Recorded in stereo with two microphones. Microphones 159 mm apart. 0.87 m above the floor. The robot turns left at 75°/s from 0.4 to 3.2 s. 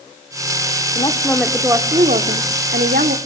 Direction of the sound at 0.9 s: 40° left.